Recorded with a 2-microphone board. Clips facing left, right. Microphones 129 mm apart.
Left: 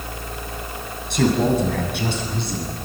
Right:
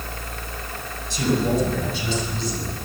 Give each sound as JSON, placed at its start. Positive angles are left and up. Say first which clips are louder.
{"t": 1.1, "sound": "a man speaking", "louder": "left 3 dB", "side_deg": 60, "distance_m": 7.0}